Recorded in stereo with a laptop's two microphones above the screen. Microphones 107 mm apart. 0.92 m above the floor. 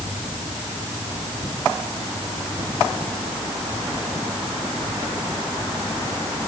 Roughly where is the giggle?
I don't hear a giggle.